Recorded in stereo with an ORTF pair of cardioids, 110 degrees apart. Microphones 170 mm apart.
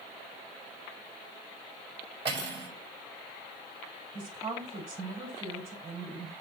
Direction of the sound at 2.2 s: 35° right.